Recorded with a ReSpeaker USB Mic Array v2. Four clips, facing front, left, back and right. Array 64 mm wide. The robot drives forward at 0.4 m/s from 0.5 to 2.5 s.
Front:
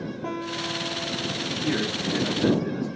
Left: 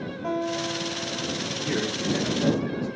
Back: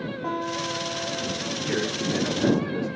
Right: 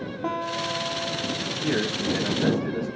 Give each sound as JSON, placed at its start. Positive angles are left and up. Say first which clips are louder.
{"t": 0.2, "sound": "a guitar", "louder": "left 1 dB, back 3 dB", "azimuth_deg": -90, "distance_m": 1.1}
{"t": 1.6, "sound": "a man speaking", "louder": "right 2 dB, even", "azimuth_deg": -95, "distance_m": 1.1}